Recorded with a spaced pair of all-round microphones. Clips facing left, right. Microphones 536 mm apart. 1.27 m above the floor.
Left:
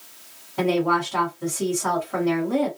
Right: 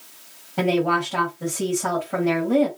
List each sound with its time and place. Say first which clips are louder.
0.6 s a woman speaking: even; 80° right, 1.7 m